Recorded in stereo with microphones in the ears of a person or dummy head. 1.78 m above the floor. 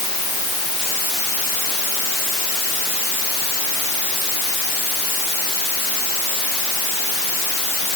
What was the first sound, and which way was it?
Only background noise.